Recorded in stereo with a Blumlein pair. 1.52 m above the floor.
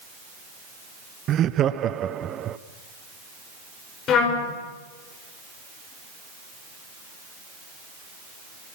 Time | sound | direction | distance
1.3 | laughter | 30° right | 0.8 m
4.1 | a trumpet | 30° left | 5.5 m